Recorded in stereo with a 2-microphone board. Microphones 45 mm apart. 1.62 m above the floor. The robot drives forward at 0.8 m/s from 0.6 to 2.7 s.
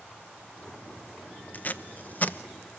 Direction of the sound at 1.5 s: 40° left (ahead or behind).